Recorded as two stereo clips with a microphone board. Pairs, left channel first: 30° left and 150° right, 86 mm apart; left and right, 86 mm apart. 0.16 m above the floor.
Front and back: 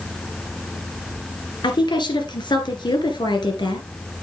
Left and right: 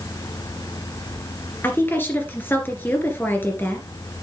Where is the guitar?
No guitar in this recording.